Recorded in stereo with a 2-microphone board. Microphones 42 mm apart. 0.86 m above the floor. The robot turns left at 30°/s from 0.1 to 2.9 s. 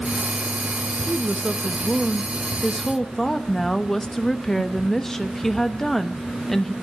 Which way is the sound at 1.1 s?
135° right.